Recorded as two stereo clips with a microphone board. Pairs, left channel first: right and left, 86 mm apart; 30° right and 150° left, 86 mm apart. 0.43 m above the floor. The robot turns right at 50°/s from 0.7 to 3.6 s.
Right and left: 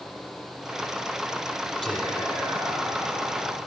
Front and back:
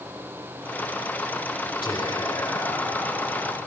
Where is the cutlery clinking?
No cutlery clinking in this recording.